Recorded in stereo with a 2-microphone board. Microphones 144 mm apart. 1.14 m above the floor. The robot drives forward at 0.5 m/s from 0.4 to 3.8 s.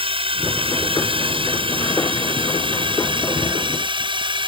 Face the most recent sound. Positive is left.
turn(degrees=-35)  # may be behind; listen again after turning